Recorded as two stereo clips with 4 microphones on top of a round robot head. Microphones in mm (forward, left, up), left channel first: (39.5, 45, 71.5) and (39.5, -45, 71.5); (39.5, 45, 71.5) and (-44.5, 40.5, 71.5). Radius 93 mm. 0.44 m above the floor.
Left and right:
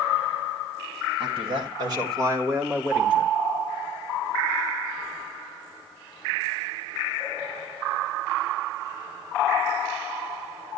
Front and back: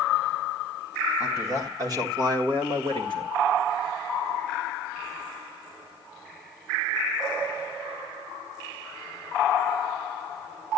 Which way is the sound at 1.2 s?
115° right.